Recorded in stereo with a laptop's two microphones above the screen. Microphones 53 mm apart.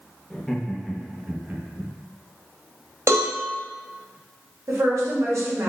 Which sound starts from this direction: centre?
Laughter, at 0.3 s.